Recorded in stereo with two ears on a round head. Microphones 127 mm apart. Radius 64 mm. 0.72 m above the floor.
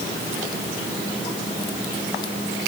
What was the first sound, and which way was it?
Only background noise.